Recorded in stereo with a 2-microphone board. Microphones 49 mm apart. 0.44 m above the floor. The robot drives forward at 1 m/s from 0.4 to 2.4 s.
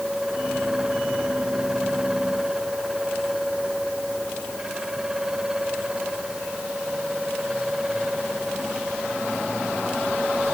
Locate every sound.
Only background noise.